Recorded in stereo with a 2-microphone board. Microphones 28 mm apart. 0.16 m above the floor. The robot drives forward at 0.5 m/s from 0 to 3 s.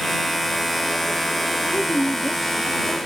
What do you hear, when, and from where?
1.6 s a woman speaking: 5° left (ahead or behind), 1.8 m